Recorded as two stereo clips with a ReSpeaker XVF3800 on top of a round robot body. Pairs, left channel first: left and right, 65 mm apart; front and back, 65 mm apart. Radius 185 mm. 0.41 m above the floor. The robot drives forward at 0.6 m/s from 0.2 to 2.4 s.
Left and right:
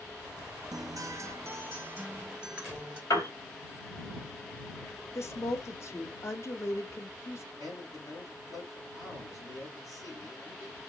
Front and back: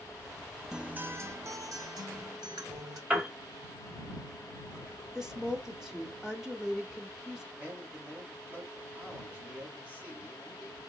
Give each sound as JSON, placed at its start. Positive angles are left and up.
{"t": 0.7, "sound": "a guitar", "azimuth_deg": -100, "distance_m": 0.5}
{"t": 3.1, "sound": "a piano", "azimuth_deg": 110, "distance_m": 2.0}
{"t": 5.2, "sound": "a woman speaking", "azimuth_deg": 100, "distance_m": 1.2}
{"t": 7.5, "sound": "a man speaking", "azimuth_deg": 110, "distance_m": 3.0}